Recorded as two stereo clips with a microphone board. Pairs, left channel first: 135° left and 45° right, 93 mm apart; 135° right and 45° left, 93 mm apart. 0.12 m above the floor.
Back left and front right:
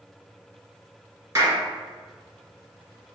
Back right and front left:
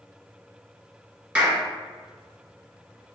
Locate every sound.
1.4 s a clap: 20° right, 1.5 m